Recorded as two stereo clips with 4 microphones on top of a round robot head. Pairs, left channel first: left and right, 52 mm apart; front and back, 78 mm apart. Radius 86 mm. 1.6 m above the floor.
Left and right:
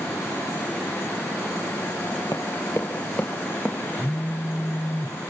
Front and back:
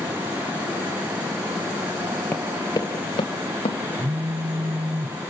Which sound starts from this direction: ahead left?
Running footsteps, at 2.3 s.